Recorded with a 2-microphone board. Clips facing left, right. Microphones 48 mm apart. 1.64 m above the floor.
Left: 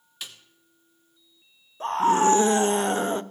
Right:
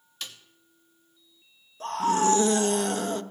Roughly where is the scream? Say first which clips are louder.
Left 4 dB; left.